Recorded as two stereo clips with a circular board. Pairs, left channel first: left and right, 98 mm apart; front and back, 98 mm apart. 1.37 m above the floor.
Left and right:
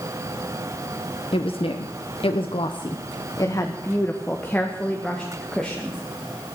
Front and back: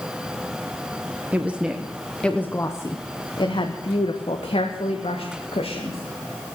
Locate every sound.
1.3 s a woman speaking: 110° left, 1.2 m; by 6.6 s straight ahead, 2.5 m